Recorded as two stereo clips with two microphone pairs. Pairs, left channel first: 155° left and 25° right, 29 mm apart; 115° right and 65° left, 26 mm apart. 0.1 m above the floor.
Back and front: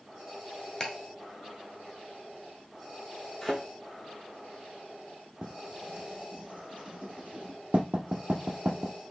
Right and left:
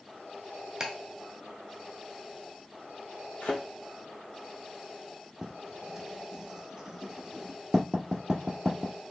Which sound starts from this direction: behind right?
A thud, at 3.4 s.